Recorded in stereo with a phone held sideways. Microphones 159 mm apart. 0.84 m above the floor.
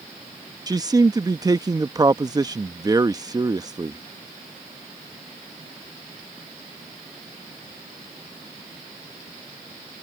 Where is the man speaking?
25° right (ahead or behind).